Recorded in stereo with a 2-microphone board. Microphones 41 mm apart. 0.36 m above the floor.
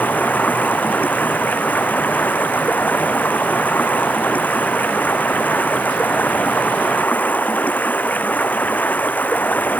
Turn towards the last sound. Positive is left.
turn(degrees=45)  # may be behind; listen again after turning